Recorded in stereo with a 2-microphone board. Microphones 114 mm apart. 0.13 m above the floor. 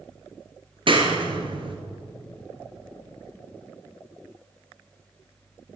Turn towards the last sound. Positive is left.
turn(degrees=-50)  # may be behind; listen again after turning